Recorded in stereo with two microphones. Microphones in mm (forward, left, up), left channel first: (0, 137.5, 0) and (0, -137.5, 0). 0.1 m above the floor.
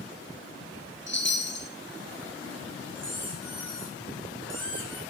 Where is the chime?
45° left (ahead or behind), 1.8 m.